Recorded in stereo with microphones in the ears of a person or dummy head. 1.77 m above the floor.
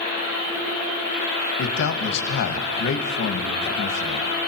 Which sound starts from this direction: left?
A man speaking, at 1.6 s.